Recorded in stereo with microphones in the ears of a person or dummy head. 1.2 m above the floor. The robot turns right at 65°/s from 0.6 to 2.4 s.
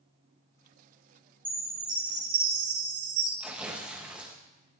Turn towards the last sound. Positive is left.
turn(degrees=-5)  # may be behind; listen again after turning